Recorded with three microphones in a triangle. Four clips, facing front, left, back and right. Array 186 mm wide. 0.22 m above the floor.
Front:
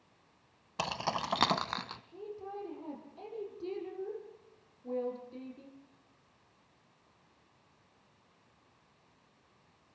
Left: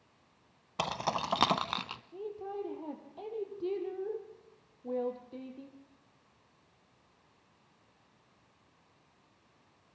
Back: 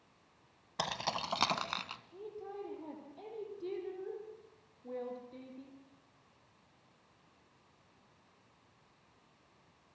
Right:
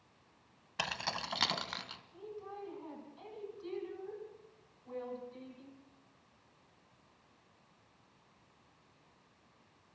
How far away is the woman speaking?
About 7 m.